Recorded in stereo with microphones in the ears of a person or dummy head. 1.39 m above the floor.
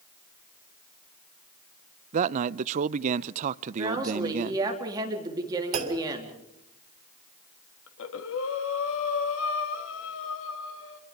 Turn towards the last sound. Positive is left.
turn(degrees=75)  # may be behind; listen again after turning